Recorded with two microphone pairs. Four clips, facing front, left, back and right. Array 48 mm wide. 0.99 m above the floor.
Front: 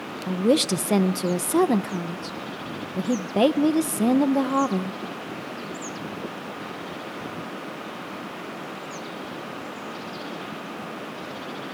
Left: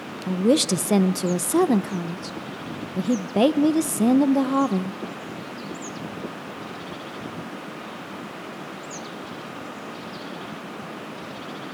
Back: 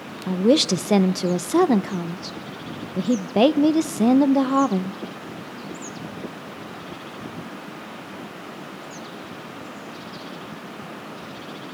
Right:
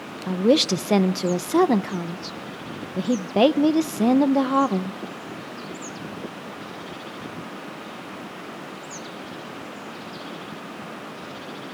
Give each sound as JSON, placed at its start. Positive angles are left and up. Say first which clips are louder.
{"t": 0.3, "sound": "a woman speaking", "louder": "right 1 dB, back 3 dB", "azimuth_deg": -90, "distance_m": 0.7}